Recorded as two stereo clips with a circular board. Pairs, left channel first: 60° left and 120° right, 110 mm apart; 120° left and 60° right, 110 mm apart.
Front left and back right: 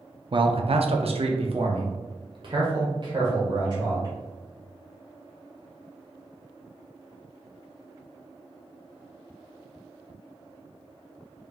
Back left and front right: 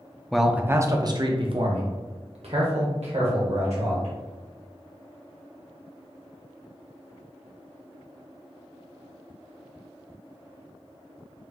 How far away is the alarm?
No alarm in this recording.